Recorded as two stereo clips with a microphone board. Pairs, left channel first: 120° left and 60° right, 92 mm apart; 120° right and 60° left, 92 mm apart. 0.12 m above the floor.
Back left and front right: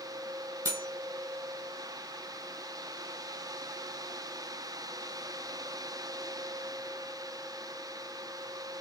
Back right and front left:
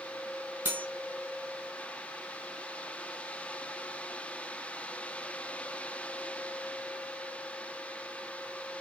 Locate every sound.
0.7 s cutlery clinking: 10° right, 2.5 m